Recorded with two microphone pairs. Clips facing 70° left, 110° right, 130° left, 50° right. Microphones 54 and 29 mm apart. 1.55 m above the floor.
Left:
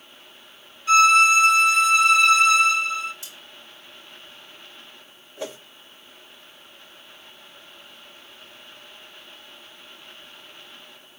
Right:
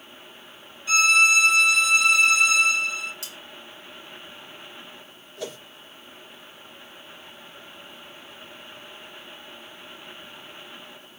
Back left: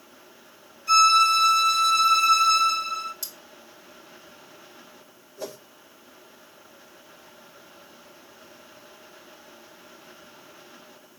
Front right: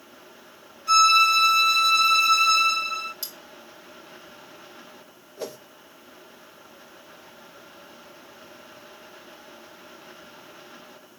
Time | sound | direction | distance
0.9 | a violin | 15° left | 3.5 m
3.2 | cutlery clinking | 100° right | 1.8 m
5.4 | a whoosh | 10° left | 1.5 m